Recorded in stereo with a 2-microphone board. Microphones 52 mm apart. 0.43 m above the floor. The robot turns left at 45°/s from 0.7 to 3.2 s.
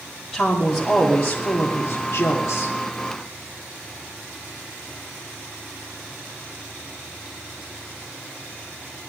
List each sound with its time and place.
0.3 s a woman speaking: 175° right, 2.5 m; by 2.8 s 95° left, 2.5 m